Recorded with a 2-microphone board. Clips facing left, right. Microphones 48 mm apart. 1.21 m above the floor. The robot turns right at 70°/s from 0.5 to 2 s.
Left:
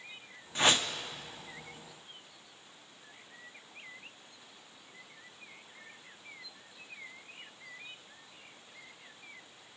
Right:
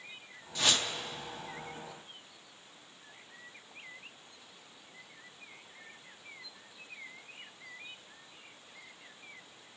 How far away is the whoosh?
About 0.7 m.